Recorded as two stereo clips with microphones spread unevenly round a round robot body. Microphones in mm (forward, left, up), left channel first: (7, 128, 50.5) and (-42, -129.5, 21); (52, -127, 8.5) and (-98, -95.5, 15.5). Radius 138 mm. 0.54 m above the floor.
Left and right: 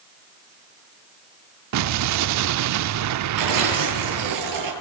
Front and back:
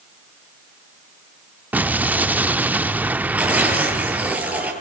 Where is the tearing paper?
110° right, 9.5 m.